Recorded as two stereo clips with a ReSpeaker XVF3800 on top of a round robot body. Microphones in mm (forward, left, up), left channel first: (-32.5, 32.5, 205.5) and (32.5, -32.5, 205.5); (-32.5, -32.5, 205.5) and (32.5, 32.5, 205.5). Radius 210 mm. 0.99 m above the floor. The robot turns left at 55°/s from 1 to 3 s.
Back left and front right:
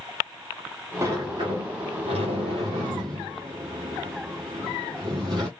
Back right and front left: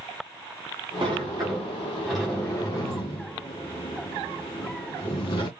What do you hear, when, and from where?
1.0 s a sliding door: 15° left, 0.6 m; by 5.5 s 95° right, 0.6 m